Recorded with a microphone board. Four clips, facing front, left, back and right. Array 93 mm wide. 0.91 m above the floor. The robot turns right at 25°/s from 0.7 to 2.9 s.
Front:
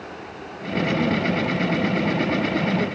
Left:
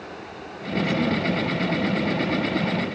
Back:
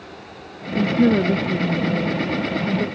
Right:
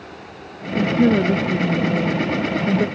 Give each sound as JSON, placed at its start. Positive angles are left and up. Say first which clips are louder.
{"t": 0.8, "sound": "a woman speaking", "louder": "right 7 dB, back 5 dB", "azimuth_deg": -145}